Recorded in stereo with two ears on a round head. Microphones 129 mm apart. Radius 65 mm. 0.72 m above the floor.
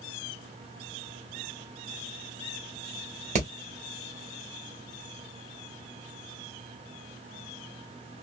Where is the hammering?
50° right (ahead or behind), 1.6 m.